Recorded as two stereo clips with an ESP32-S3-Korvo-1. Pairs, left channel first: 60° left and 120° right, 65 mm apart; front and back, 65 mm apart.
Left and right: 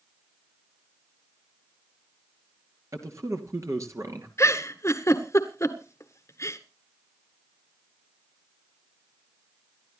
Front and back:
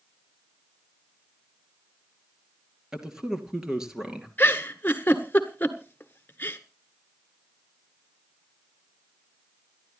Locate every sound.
2.9 s a man speaking: 100° right, 2.5 m
4.4 s a giggle: 50° left, 1.5 m